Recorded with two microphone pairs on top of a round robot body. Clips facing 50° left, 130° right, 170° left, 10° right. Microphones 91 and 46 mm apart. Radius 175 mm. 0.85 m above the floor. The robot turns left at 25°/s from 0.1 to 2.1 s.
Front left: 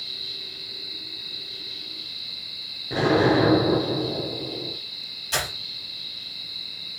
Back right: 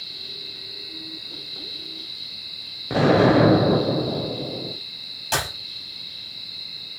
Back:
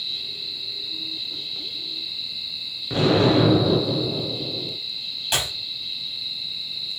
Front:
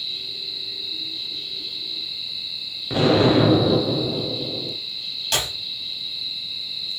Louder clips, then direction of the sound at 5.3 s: Back right 3 dB, even; 115° right.